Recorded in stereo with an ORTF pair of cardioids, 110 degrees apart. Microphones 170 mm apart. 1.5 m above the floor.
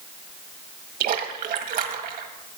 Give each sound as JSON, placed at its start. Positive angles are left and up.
{"t": 1.0, "sound": "a splash", "azimuth_deg": -60, "distance_m": 1.5}